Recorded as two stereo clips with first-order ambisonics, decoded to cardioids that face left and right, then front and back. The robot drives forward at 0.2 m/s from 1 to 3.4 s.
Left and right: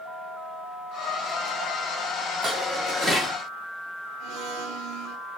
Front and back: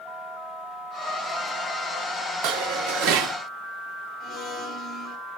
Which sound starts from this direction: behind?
Dishes clattering, at 2.4 s.